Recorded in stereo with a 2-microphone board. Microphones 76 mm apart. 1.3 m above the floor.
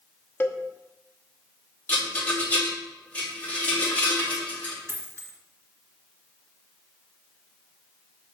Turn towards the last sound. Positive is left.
turn(degrees=-35)  # may be behind; listen again after turning